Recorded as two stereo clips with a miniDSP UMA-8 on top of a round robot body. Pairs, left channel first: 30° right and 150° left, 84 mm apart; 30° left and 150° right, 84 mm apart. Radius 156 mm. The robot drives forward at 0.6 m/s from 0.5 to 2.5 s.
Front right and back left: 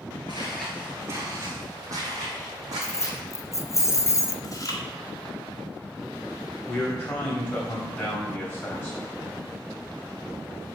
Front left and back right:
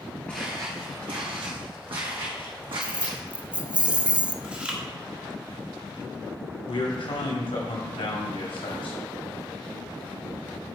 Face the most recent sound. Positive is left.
turn(degrees=35)